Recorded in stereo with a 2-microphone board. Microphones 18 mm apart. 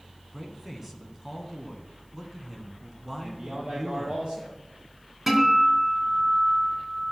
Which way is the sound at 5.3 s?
20° right (ahead or behind).